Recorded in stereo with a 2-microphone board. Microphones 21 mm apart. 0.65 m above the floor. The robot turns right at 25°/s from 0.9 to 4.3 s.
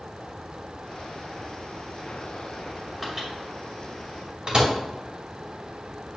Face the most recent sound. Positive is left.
turn(degrees=-50)  # may be behind; listen again after turning